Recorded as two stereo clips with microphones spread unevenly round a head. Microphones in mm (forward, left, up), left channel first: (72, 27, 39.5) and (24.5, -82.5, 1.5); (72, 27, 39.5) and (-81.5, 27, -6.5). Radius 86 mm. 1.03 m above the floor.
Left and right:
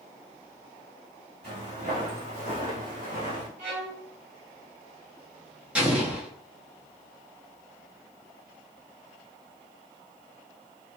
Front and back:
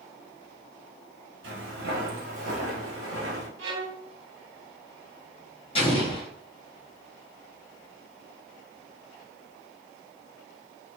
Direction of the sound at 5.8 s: 60° right.